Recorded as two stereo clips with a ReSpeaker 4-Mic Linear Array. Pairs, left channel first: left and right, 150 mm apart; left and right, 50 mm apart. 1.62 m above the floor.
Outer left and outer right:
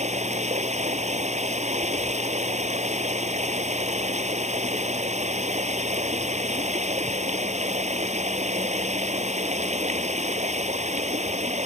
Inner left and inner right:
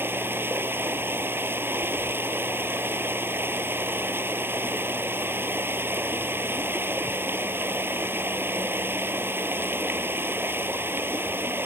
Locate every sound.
0.0 s running water: 50° right (ahead or behind)